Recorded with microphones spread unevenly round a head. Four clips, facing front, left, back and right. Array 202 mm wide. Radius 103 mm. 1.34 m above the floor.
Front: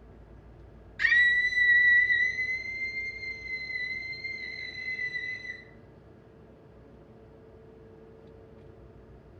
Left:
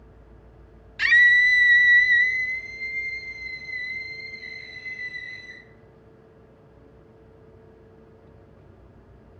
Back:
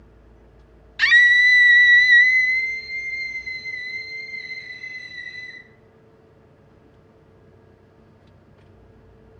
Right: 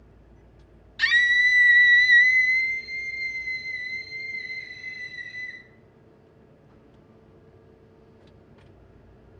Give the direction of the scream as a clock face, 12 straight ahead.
7 o'clock.